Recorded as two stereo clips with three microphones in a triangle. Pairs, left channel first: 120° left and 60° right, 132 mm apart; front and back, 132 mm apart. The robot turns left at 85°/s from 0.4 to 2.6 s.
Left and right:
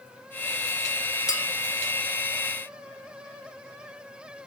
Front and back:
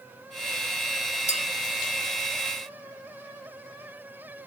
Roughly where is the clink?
Ahead left.